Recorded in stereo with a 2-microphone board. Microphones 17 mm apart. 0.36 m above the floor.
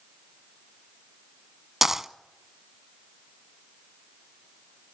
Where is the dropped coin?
25° right (ahead or behind), 0.6 m.